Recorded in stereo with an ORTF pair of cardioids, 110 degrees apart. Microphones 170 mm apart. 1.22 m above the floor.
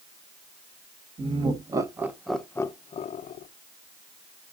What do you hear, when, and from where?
1.2 s laughter: 30° right, 1.5 m; by 3.5 s 60° left, 1.0 m